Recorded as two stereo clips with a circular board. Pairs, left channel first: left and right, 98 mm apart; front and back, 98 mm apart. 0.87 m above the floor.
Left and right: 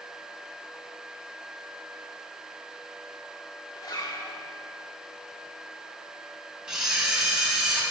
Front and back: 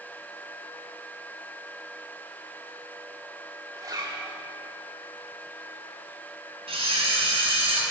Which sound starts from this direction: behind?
A camera shutter, at 6.7 s.